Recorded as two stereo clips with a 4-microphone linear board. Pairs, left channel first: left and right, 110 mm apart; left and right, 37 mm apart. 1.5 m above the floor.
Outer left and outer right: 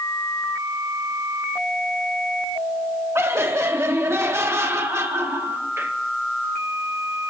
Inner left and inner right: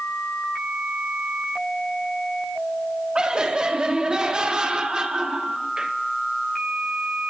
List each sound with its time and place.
3.1 s laughter: 25° right (ahead or behind), 1.0 m